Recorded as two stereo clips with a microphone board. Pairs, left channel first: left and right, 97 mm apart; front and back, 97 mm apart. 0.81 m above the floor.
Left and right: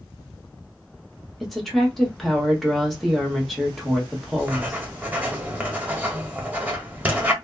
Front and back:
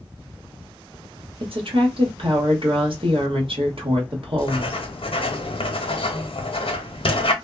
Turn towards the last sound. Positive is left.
turn(degrees=-15)